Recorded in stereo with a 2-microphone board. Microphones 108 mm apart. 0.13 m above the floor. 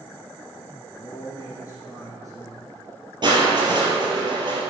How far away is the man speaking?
About 2.5 m.